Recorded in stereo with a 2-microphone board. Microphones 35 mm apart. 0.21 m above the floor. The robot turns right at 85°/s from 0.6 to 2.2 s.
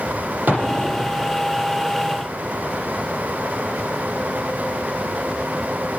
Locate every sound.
0.5 s an explosion: 120° right, 7.5 m; by 1.4 s 55° right, 7.5 m